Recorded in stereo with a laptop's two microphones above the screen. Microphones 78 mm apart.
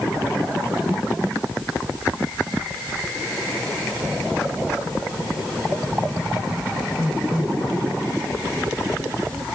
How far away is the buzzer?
I don't hear a buzzer.